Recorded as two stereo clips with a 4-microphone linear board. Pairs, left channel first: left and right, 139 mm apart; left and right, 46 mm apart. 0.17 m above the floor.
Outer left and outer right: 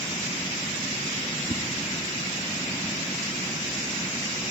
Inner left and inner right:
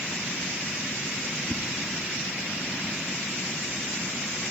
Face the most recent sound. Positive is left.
turn(degrees=-35)  # may be behind; listen again after turning